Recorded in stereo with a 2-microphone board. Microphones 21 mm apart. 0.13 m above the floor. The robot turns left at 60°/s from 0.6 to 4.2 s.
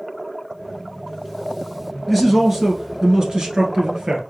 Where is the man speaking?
Straight ahead, 1.6 m; by 4.2 s 125° right, 1.6 m.